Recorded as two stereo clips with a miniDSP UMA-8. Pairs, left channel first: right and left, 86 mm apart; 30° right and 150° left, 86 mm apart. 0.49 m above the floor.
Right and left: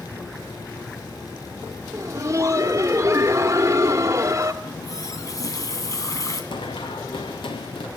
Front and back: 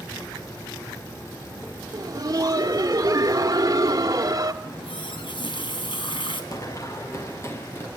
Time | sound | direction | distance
1.9 | laughter | 130° left | 1.1 m
4.6 | a running tap | 45° right | 3 m
6.5 | running footsteps | 80° right | 2 m